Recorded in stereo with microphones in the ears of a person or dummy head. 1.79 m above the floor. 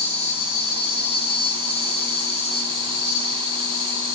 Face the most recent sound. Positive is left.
turn(degrees=30)  # may be behind; listen again after turning